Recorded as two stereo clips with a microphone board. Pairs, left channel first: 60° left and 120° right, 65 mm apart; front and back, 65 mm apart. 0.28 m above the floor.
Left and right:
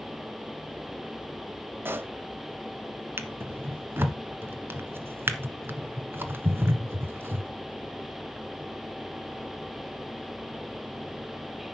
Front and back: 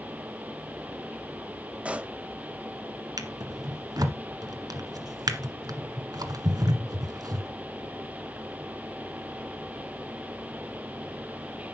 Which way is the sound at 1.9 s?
125° right.